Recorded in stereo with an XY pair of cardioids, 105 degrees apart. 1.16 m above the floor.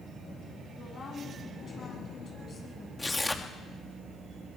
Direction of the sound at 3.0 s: 15° left.